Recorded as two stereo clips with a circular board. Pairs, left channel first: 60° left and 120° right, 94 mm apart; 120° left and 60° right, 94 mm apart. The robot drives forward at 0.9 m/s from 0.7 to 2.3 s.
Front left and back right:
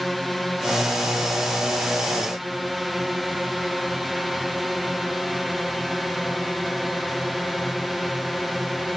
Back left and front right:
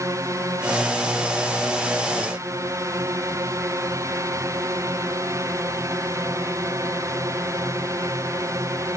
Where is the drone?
30° right.